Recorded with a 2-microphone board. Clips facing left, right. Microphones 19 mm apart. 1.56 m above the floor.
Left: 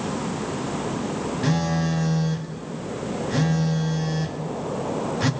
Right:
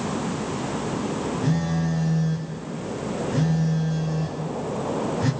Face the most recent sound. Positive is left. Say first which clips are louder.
# left 3 dB
turn(degrees=55)  # may be behind; listen again after turning